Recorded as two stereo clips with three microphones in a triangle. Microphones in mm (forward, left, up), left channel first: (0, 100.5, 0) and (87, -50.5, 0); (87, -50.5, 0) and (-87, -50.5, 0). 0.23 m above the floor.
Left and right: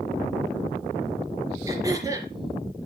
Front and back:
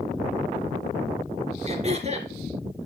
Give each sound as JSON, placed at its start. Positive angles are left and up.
{"t": 1.7, "sound": "throat clearing", "azimuth_deg": -130, "distance_m": 3.0}